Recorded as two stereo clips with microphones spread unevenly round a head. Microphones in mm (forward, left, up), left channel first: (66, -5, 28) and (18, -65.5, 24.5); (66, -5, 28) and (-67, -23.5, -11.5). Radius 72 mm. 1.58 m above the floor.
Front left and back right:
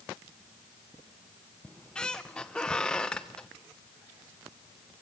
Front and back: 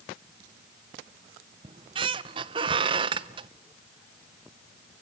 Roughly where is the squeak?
Behind left.